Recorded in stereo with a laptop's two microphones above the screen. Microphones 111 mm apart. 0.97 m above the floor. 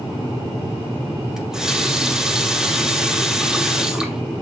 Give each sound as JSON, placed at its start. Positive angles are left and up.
{"t": 1.4, "sound": "a running tap", "side_deg": -5, "distance_m": 2.5}